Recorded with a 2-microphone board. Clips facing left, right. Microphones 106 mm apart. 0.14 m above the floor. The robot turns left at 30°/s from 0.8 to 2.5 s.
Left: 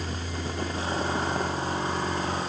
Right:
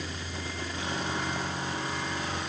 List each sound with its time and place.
Only background noise.